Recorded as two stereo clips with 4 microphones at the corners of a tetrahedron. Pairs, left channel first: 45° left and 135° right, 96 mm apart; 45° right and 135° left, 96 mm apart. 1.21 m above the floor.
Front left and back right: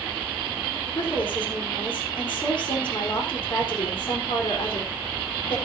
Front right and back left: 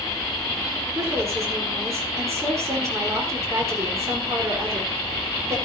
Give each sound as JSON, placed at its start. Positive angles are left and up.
{"t": 0.9, "sound": "a woman speaking", "azimuth_deg": 75, "distance_m": 4.0}